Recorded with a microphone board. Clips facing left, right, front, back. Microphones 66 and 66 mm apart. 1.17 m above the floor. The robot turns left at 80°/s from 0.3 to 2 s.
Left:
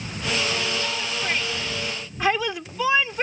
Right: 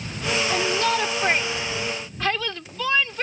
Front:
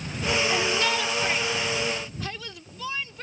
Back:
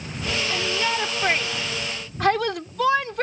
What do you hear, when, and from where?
0.5 s a shout: 75° right; by 3.2 s 165° left